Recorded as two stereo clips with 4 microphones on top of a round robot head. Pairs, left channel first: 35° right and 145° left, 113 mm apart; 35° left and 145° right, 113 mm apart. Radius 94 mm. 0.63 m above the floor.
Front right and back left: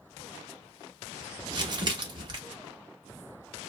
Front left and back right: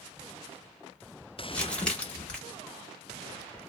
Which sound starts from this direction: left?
Crumpling, at 1.5 s.